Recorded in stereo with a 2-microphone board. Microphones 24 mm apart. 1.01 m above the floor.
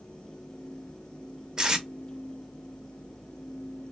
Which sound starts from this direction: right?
Tape being pulled, at 1.6 s.